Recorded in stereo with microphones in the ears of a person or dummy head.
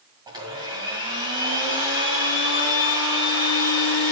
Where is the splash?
No splash in this recording.